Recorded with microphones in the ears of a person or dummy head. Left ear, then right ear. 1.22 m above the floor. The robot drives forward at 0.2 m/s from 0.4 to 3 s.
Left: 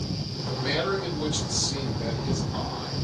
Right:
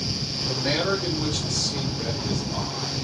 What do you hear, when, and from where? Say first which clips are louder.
0.4 s a man speaking: right 2 dB; 25° right (ahead or behind), 1.9 m; by 2.9 s 20° right (ahead or behind), 2.5 m